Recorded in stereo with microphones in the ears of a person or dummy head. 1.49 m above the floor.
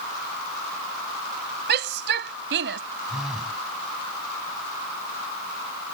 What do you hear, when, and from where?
1.7 s a shout: 60° right (ahead or behind); by 2.8 s 65° right (ahead or behind)
3.1 s a phone buzzing: centre (ahead or behind)